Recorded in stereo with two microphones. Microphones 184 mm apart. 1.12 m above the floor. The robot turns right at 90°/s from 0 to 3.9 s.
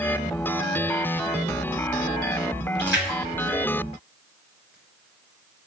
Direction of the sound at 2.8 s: 70° right (ahead or behind).